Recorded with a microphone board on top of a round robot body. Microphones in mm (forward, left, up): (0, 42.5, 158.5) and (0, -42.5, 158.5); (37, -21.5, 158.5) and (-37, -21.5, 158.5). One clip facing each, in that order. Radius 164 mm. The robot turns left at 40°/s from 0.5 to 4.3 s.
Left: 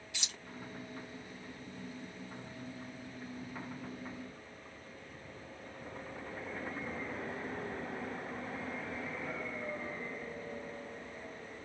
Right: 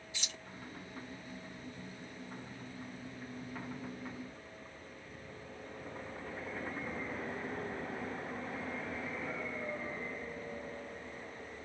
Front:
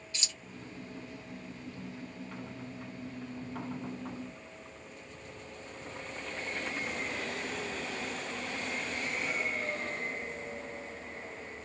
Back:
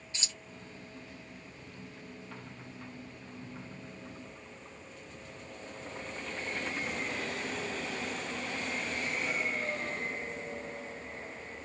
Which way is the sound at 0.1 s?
120° left.